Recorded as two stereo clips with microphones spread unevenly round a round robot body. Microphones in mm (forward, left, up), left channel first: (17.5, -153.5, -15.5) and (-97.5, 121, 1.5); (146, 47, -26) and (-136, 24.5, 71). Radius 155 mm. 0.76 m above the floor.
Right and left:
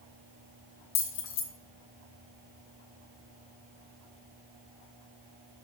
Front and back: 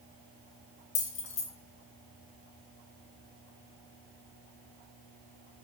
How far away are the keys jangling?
About 0.7 m.